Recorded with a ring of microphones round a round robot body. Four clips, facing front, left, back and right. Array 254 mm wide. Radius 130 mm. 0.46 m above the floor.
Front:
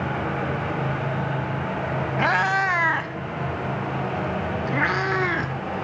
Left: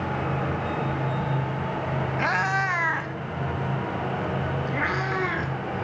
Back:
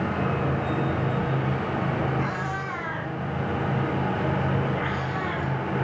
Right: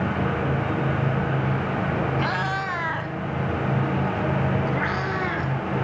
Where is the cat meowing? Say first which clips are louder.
Left 1 dB, front 8 dB; 10° left, 1.3 m; by 5.5 s straight ahead, 3.5 m.